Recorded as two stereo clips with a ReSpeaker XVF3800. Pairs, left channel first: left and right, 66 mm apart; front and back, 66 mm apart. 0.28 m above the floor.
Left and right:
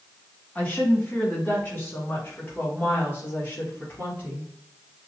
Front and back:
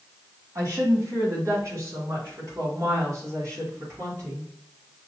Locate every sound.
0.6 s a woman speaking: 155° left, 2 m; by 4.5 s 145° left, 4.5 m